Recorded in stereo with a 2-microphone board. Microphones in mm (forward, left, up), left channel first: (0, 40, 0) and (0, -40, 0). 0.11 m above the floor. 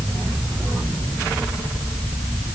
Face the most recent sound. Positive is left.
No sound to turn to.